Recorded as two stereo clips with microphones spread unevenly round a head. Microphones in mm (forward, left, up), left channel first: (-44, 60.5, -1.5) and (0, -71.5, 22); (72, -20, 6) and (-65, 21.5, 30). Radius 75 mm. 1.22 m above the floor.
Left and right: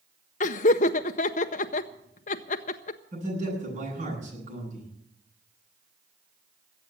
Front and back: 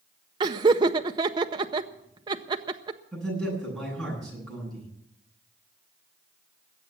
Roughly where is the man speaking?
Right.